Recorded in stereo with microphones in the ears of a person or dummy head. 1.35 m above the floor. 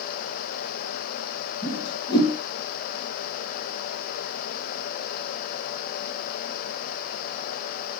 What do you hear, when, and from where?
1.6 s a whoosh: 25° left (ahead or behind), 4 m